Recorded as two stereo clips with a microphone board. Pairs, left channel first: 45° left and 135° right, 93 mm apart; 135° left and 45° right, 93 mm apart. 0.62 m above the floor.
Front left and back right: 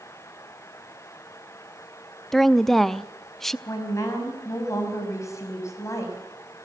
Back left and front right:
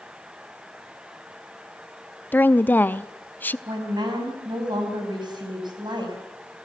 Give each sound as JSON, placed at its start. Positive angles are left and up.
{"t": 2.3, "sound": "a woman speaking", "azimuth_deg": 125, "distance_m": 0.6}
{"t": 3.7, "sound": "a woman speaking", "azimuth_deg": -10, "distance_m": 5.0}